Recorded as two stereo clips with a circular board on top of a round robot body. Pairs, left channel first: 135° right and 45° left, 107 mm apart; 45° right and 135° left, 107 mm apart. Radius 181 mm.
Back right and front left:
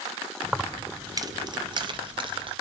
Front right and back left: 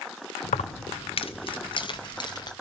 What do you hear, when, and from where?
0.4 s keys jangling: 45° right, 0.5 m; by 2.5 s 5° left, 1.7 m